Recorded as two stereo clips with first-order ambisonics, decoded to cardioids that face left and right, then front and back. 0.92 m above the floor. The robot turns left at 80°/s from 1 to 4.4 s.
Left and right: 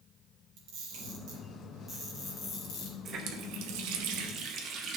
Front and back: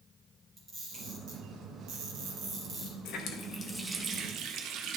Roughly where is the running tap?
Ahead right.